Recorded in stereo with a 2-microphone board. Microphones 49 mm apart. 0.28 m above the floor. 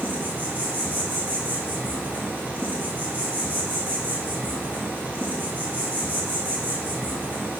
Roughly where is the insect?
Right.